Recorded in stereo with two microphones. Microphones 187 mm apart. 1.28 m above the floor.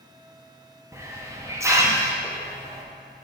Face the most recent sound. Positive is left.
turn(degrees=-15)  # may be behind; listen again after turning